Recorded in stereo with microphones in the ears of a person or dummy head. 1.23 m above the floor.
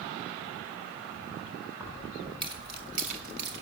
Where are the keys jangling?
15° right (ahead or behind), 3.5 m; by 3.6 s 70° right (ahead or behind), 2 m.